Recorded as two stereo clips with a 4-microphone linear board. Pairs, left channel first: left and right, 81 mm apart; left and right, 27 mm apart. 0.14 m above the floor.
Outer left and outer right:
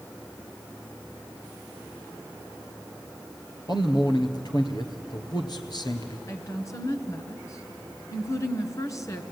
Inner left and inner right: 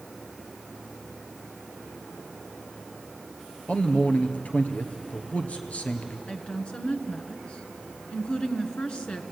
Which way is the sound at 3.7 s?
60° left (ahead or behind).